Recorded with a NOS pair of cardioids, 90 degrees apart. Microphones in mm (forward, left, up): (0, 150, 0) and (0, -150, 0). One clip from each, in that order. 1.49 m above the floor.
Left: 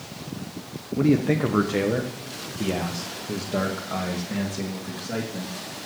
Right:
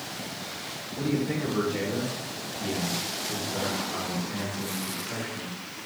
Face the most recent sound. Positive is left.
turn(degrees=80)